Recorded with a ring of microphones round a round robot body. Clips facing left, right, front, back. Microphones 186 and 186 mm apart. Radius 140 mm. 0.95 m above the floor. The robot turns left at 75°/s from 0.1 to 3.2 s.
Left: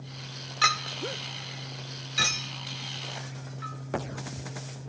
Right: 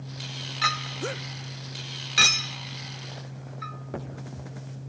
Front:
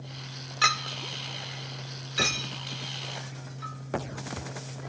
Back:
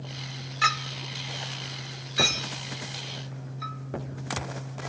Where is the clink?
50° left, 0.6 m; by 4.9 s 145° right, 0.6 m.